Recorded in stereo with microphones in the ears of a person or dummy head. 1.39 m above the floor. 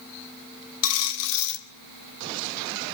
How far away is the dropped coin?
About 2 m.